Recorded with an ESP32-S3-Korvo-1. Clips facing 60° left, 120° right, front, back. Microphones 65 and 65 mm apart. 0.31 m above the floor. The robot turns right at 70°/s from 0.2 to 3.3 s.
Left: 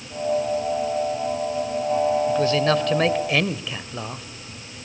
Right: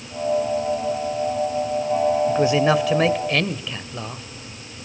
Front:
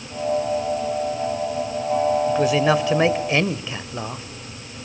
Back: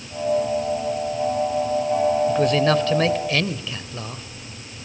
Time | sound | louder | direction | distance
2.3 | a man speaking | right 2 dB, even | 90° right | 0.9 m